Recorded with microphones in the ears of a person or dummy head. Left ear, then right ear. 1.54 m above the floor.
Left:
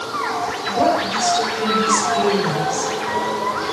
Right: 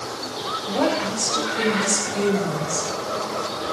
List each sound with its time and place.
0.7 s a woman speaking: 75° right (ahead or behind), 7.5 m